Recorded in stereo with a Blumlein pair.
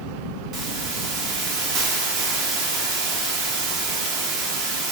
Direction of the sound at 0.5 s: 35° right.